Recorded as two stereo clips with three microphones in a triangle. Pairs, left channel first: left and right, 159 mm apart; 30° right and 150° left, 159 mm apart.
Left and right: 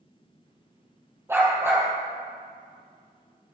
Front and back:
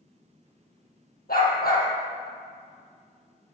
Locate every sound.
1.3 s a dog barking: 15° right, 2.5 m